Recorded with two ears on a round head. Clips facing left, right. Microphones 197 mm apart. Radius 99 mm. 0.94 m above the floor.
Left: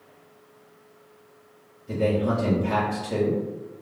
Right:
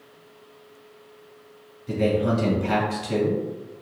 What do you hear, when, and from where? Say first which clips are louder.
1.9 s a man speaking: right 1 dB; 70° right (ahead or behind), 1.6 m